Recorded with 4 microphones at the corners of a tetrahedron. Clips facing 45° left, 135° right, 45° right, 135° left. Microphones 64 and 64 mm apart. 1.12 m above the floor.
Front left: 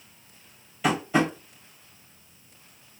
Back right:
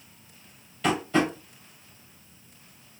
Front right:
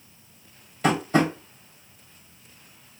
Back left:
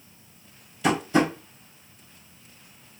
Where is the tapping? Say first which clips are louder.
Front left 1 dB, even; 35° right, 1.2 m.